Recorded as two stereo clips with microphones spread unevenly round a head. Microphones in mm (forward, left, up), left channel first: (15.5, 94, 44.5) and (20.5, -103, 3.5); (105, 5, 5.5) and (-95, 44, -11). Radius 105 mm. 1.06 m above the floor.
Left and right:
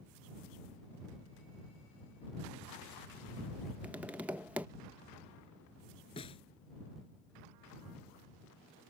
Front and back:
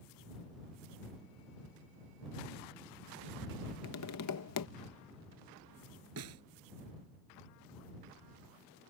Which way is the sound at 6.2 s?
155° left.